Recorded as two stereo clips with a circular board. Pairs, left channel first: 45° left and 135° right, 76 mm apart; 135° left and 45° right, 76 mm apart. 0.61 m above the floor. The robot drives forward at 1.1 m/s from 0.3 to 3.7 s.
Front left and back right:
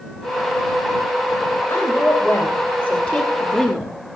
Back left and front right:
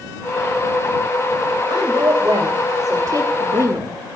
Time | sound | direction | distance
1.7 | a woman speaking | 10° right | 3 m